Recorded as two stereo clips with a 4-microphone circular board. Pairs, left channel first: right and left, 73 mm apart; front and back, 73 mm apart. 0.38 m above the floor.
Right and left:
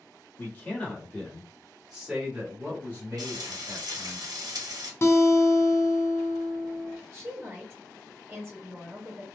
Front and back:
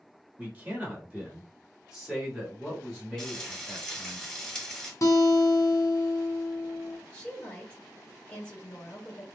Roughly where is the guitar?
Ahead right.